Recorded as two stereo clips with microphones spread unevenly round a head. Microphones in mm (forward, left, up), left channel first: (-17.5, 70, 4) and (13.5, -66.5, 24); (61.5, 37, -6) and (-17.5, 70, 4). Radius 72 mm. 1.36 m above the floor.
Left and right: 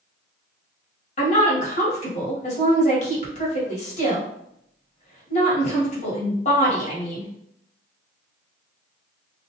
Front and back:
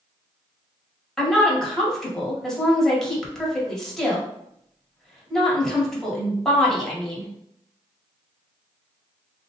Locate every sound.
1.2 s a woman speaking: 60° left, 1.5 m